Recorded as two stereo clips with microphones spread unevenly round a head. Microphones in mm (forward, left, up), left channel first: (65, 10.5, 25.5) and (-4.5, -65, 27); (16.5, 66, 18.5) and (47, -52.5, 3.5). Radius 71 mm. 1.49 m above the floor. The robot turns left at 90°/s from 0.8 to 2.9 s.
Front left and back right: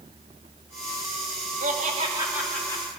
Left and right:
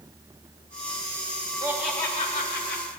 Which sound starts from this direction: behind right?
Laughter, at 1.6 s.